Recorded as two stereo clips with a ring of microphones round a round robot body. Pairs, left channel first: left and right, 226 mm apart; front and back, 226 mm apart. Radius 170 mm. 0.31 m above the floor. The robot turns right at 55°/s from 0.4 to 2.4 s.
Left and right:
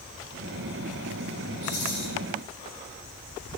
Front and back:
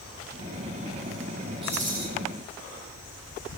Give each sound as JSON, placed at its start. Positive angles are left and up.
{"t": 1.6, "sound": "a rattle", "azimuth_deg": 110, "distance_m": 4.0}